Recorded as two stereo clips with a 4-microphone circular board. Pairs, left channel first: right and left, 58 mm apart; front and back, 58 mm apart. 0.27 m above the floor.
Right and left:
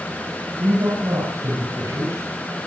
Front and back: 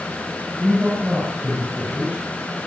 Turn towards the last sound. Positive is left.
turn(degrees=110)